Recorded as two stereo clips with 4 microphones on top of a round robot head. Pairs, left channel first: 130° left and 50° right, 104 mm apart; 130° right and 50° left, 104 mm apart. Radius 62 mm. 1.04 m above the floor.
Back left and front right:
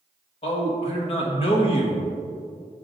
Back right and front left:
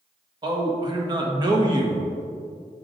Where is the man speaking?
100° left, 1.2 m.